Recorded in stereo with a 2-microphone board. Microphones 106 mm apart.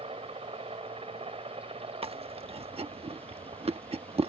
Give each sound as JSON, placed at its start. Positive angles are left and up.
{"t": 0.0, "sound": "a helicopter", "side_deg": -70}
{"t": 2.0, "sound": "chewing", "side_deg": -75}